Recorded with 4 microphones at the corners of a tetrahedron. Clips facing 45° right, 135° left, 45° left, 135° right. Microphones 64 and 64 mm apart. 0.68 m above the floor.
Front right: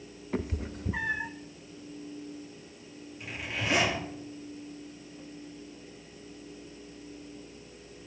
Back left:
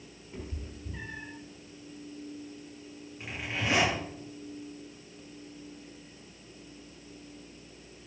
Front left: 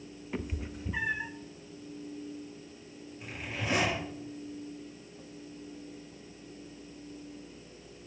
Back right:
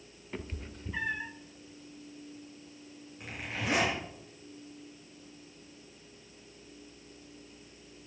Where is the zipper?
165° right, 7 m.